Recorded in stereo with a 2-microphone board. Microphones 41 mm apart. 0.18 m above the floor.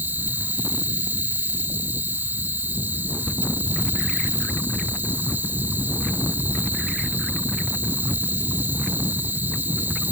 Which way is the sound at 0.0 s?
55° right (ahead or behind).